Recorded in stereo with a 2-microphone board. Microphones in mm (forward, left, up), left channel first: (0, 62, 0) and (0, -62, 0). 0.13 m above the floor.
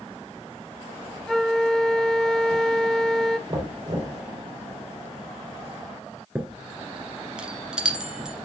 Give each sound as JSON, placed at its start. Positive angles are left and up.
{"t": 1.3, "sound": "a flute", "side_deg": 5, "distance_m": 0.7}
{"t": 3.5, "sound": "knocking", "side_deg": -40, "distance_m": 3.5}
{"t": 6.3, "sound": "a chime", "side_deg": -5, "distance_m": 2.0}